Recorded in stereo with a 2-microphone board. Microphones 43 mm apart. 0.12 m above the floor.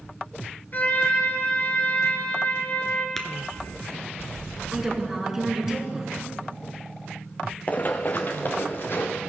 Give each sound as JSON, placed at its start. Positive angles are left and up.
{"t": 0.7, "sound": "a trumpet", "side_deg": 40, "distance_m": 1.1}
{"t": 3.2, "sound": "tapping", "side_deg": 5, "distance_m": 0.9}
{"t": 4.7, "sound": "a woman speaking", "side_deg": -10, "distance_m": 1.2}
{"t": 7.7, "sound": "running footsteps", "side_deg": 30, "distance_m": 0.6}